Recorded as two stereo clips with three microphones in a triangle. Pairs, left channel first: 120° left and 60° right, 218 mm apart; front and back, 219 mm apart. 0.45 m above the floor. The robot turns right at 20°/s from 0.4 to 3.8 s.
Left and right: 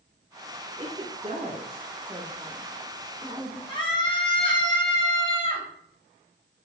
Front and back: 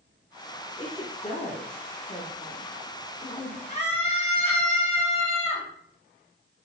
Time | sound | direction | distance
0.8 | a woman speaking | 35° right | 1.1 m
3.7 | a scream | 55° left | 3 m